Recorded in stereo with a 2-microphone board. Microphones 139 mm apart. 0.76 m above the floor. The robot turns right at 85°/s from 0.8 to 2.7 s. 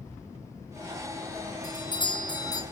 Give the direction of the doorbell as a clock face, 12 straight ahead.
10 o'clock.